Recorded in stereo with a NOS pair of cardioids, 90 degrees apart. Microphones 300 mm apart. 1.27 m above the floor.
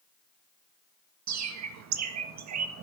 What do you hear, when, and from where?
1.3 s a bird: 60° right, 1.8 m